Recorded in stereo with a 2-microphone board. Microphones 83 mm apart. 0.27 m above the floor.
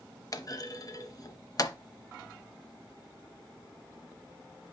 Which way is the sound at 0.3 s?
45° left (ahead or behind).